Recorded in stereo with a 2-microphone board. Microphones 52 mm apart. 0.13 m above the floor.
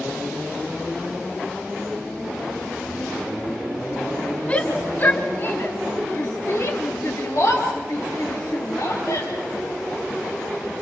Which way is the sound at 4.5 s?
20° left (ahead or behind).